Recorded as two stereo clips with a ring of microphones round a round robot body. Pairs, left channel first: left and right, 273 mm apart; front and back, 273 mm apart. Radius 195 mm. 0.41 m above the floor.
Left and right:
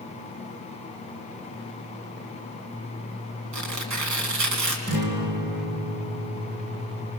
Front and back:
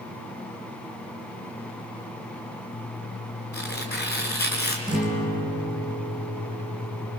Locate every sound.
3.5 s tearing paper: 85° right, 3.5 m
4.9 s a guitar: 100° right, 4 m